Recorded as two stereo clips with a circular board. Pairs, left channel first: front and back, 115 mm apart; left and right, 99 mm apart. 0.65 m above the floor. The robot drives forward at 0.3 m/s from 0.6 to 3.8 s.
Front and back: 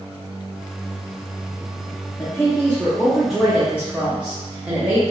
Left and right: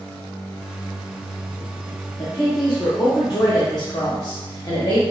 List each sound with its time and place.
2.2 s a woman speaking: 60° left, 0.9 m; by 5.0 s 105° left, 0.8 m